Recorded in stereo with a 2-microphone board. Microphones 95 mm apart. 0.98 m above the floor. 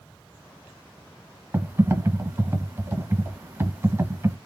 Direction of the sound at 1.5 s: 25° right (ahead or behind).